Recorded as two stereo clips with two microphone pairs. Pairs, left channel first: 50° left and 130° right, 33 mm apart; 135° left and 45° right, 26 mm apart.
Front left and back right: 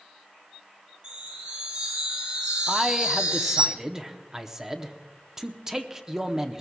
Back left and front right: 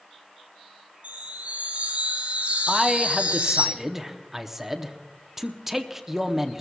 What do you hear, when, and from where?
1.0 s a chime: 85° right, 7.5 m
2.7 s a man speaking: 85° right, 0.7 m